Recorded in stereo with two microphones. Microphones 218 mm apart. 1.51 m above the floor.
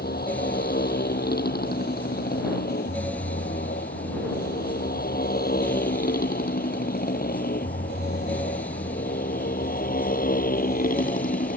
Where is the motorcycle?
45° left (ahead or behind); by 11.6 s 40° left (ahead or behind).